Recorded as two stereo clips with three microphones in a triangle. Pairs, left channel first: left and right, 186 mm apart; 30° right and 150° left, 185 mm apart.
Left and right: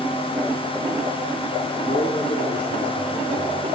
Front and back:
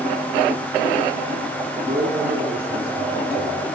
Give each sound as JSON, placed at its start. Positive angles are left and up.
{"t": 1.8, "sound": "a man speaking", "azimuth_deg": 130, "distance_m": 2.5}